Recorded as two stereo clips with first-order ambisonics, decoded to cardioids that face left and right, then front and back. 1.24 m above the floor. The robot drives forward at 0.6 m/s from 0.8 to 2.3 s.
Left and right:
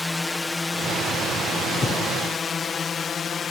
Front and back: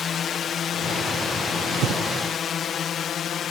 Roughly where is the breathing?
Behind left.